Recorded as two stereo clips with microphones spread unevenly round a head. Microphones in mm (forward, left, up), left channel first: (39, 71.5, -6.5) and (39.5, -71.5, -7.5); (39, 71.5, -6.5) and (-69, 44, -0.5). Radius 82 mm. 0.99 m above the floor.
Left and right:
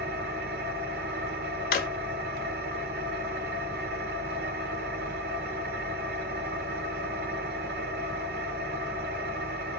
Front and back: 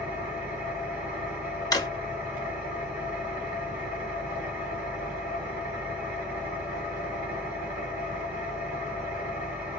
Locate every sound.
0.0 s an engine running: 90° right, 1.6 m
1.7 s a drawer: 70° left, 1.1 m